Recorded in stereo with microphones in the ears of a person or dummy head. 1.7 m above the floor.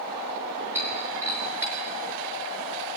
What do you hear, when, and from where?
0.8 s breaking glass: 10° right (ahead or behind), 5 m